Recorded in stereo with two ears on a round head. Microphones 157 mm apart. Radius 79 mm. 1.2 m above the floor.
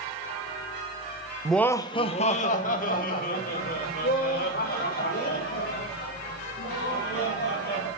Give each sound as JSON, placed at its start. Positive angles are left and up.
{"t": 1.4, "sound": "laughter", "side_deg": -5, "distance_m": 0.6}